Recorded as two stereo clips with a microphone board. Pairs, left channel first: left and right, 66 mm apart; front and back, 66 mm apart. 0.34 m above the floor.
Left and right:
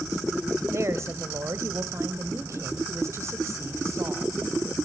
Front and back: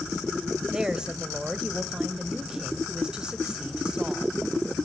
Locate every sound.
0.7 s a woman speaking: 105° right, 1.2 m